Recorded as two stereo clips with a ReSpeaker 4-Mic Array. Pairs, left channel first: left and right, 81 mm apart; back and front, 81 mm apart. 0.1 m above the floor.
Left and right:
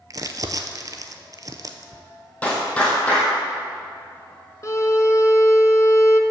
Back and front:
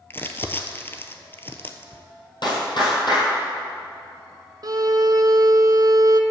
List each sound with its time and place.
0.1 s crumpling: 125° right, 0.6 m
2.4 s a clap: 160° left, 2.5 m
4.6 s a violin: 40° left, 0.6 m